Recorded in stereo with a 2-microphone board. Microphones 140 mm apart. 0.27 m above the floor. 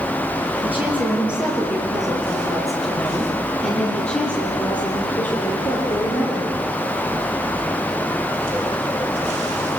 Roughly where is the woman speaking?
Centre.